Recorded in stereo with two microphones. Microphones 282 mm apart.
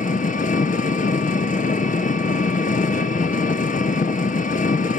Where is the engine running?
30° left (ahead or behind), 0.7 m.